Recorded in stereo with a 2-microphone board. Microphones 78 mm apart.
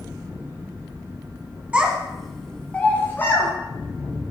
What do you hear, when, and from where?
1.7 s a child speaking: 15° right (ahead or behind), 1.1 m; by 3.5 s 35° left (ahead or behind), 1.6 m